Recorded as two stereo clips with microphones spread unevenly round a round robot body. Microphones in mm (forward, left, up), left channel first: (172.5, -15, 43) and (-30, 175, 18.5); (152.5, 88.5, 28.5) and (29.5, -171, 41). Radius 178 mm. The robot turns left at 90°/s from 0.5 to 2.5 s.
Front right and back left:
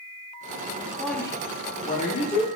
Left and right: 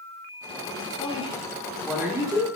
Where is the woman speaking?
60° left, 0.7 m; by 2.5 s 70° right, 0.7 m.